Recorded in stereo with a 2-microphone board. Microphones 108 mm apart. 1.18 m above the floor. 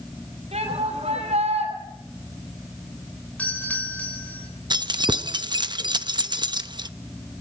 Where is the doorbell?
15° left (ahead or behind), 7 m.